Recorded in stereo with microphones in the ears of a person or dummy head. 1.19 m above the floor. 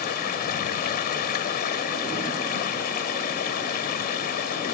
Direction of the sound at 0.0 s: 50° left (ahead or behind).